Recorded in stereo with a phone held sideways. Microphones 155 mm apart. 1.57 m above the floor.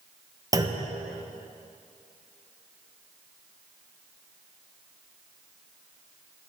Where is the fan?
I don't hear a fan.